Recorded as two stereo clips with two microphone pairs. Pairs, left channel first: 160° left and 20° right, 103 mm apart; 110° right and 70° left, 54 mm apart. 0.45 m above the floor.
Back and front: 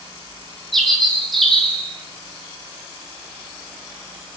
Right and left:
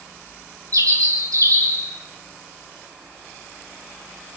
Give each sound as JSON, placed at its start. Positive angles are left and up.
{"t": 0.7, "sound": "a bird", "azimuth_deg": 70, "distance_m": 6.5}